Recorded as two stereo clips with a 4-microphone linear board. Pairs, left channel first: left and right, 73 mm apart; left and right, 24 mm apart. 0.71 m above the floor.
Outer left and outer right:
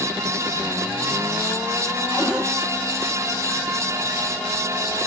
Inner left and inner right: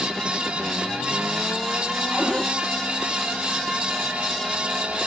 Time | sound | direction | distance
2.1 | a cupboard door | 70° right (ahead or behind) | 5 m